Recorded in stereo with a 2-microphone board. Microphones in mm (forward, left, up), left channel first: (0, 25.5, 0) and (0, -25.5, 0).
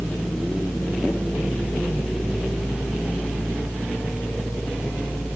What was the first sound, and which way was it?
Only background noise.